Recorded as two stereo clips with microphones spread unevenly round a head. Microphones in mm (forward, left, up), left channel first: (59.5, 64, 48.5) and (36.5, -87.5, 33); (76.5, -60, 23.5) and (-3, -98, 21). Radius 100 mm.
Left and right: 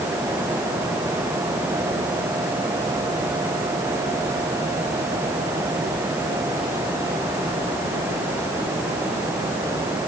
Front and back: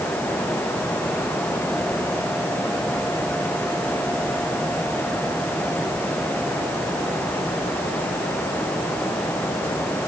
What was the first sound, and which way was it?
Only background noise.